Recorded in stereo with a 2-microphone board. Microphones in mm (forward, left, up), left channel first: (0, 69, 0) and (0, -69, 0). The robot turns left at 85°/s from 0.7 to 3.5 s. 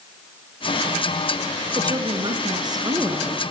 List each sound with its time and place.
1.8 s a woman speaking: 45° right, 1.8 m; by 3.4 s 170° left, 1.8 m